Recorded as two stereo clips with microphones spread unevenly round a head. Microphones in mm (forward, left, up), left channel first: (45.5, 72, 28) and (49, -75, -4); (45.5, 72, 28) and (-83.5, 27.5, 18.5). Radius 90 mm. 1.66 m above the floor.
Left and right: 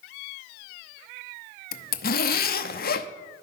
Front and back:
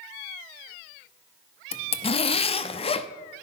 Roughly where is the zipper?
Left.